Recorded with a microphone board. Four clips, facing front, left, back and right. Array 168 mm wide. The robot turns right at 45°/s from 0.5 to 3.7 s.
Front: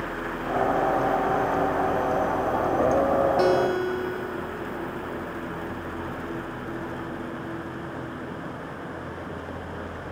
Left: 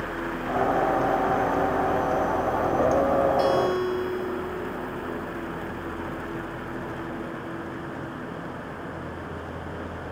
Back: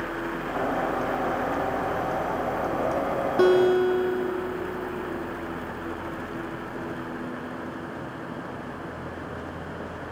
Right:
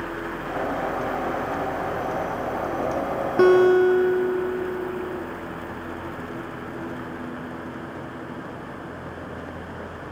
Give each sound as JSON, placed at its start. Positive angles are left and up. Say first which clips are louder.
{"t": 3.4, "sound": "a guitar", "louder": "right 7 dB, back 3 dB", "azimuth_deg": -110, "distance_m": 0.9}